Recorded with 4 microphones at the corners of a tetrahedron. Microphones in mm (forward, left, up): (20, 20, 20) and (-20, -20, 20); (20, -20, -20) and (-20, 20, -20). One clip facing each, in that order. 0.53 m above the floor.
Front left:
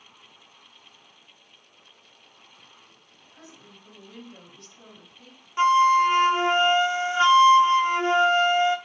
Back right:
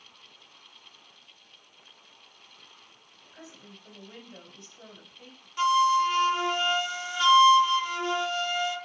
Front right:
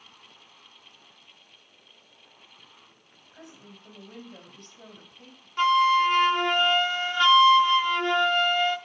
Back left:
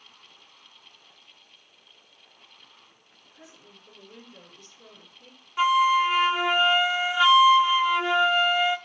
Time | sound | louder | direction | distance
3.3 | a woman speaking | back right 1 dB, front right 4 dB | 70° right | 4 m
5.6 | a flute | front left 4 dB, even | 65° left | 0.7 m